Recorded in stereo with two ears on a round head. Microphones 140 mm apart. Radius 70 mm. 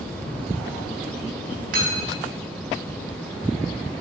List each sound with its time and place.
1.7 s cutlery clinking: 65° right (ahead or behind), 3.5 m